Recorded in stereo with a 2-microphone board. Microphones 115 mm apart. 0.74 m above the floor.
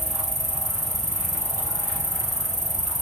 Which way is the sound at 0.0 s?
85° right.